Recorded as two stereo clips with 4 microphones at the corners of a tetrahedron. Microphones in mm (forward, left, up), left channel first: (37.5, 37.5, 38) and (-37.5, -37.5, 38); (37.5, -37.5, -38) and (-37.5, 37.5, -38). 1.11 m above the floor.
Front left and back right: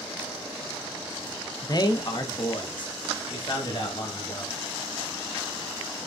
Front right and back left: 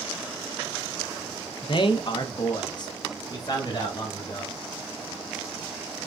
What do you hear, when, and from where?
1.6 s a man speaking: 10° right, 0.5 m; by 4.5 s 5° left, 2.0 m